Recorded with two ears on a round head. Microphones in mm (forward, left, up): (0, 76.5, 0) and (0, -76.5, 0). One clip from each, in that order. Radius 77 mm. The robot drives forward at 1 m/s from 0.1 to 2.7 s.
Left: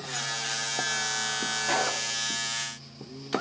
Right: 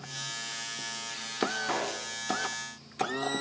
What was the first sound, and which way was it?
A gunshot, 80° left.